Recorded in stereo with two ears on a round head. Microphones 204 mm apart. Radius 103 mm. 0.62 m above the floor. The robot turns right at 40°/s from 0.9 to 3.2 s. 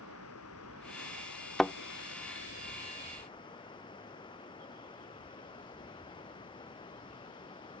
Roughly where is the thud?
Centre.